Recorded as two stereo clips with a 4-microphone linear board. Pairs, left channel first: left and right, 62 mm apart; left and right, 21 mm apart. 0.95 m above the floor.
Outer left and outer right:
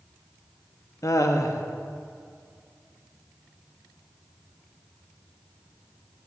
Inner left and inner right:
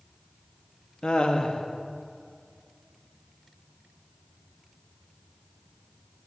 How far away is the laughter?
About 0.9 m.